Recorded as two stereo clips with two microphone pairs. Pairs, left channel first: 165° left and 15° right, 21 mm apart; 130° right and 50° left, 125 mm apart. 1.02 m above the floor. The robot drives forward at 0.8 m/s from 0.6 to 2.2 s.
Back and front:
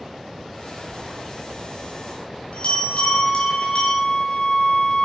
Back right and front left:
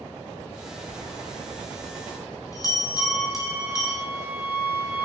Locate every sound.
0.9 s a bell: 155° left, 2 m; by 4.0 s 165° left, 3 m
3.0 s a flute: 130° left, 5 m